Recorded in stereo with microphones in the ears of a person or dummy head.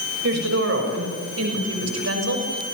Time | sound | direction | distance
0.2 | a woman speaking | 65° right (ahead or behind) | 7 m